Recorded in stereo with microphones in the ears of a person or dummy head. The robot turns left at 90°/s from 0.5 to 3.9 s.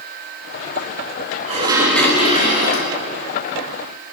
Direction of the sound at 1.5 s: 140° right.